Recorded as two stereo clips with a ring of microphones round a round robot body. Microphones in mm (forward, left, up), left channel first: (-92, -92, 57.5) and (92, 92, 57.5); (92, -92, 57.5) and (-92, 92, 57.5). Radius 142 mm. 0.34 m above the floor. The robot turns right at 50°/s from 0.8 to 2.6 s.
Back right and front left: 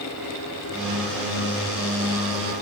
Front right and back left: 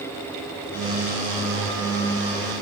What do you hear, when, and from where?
Only background noise.